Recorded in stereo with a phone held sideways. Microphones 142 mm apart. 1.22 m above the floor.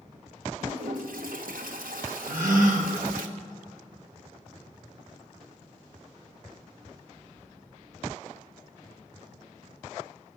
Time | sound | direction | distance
0.6 | a toilet flushing | 85° right | 1.0 m
2.3 | a gasp | 75° right (ahead or behind) | 2.5 m